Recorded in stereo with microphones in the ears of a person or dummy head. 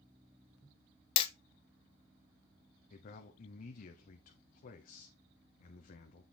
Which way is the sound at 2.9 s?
40° left (ahead or behind).